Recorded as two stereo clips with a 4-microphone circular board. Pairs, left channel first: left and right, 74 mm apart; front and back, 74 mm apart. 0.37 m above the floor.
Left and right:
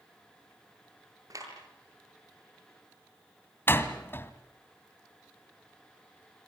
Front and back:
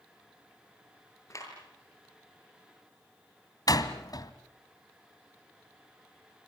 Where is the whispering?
No whispering in this recording.